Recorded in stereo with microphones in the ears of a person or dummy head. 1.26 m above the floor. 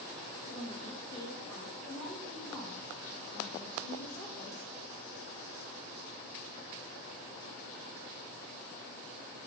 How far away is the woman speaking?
About 1.5 m.